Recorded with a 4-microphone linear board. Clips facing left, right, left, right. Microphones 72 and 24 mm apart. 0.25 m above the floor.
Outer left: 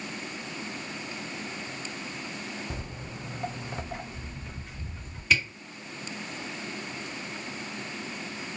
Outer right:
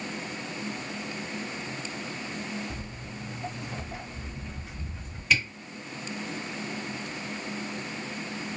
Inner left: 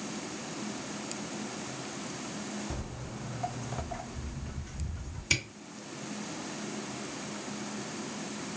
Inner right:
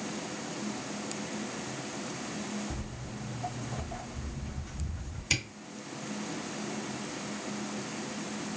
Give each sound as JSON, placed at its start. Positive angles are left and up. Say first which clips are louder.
{"t": 2.7, "sound": "footsteps", "louder": "even, even", "side_deg": 70, "distance_m": 0.5}
{"t": 5.3, "sound": "a camera shutter", "louder": "even, inner left 1 dB", "side_deg": 0, "distance_m": 1.9}